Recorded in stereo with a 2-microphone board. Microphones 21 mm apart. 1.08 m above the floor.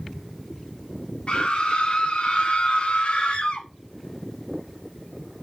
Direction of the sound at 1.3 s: 50° left (ahead or behind).